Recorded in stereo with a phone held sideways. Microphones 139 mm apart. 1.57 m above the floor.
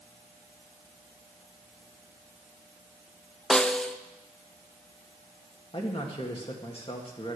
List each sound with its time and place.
3.5 s a snare drum: 5° left (ahead or behind), 0.5 m
5.7 s a man speaking: 40° left (ahead or behind), 1.8 m